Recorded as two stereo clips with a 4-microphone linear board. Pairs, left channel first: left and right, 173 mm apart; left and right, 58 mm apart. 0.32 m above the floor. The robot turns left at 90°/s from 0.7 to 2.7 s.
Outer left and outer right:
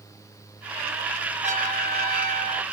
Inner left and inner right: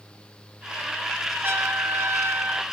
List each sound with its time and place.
1.4 s a trumpet: 50° right, 3 m; by 2.6 s 155° right, 3 m